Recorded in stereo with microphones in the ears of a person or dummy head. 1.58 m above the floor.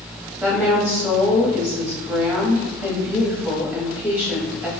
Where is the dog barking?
I don't hear a dog barking.